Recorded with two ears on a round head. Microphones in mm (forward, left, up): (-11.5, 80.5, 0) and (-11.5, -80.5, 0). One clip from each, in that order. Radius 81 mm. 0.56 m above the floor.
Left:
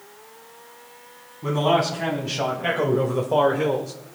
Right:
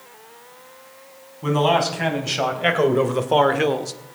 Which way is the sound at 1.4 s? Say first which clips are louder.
Right 2 dB; 70° right (ahead or behind).